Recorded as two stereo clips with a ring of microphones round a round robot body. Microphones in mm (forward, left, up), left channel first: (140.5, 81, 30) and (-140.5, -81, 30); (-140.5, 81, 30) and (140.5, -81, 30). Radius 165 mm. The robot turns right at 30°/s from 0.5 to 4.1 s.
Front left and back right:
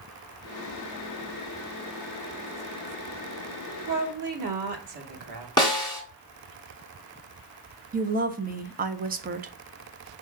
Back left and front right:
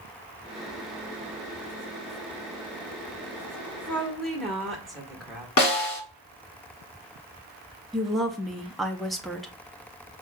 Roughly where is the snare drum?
Left.